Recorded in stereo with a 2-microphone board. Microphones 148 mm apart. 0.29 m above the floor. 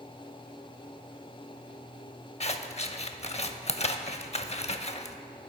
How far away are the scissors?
About 0.5 m.